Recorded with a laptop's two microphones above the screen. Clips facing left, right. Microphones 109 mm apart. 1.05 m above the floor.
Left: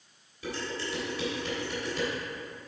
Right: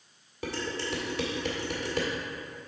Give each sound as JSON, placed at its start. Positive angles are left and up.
{"t": 0.4, "sound": "dishes clattering", "side_deg": -70, "distance_m": 1.8}